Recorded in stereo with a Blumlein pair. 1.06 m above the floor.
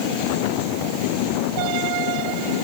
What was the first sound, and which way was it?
Only background noise.